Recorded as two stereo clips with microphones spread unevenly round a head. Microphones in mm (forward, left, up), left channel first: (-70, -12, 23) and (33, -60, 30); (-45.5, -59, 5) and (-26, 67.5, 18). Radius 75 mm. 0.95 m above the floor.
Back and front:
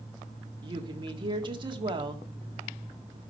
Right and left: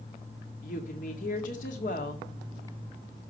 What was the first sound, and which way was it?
A woman speaking, 70° right.